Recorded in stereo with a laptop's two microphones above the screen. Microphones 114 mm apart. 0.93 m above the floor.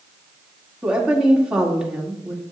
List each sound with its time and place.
0.8 s a woman speaking: 5° right (ahead or behind), 2 m